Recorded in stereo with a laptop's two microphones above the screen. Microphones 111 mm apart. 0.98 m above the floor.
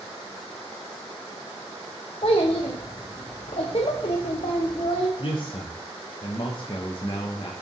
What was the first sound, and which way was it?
A child speaking, 60° left (ahead or behind).